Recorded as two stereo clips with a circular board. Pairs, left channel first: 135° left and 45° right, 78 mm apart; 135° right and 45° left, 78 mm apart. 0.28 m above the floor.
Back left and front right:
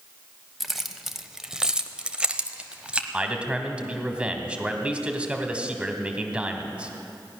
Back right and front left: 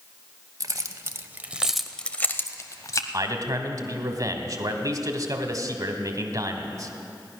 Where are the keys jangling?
45° left, 1.0 m; by 3.0 s 115° right, 1.1 m.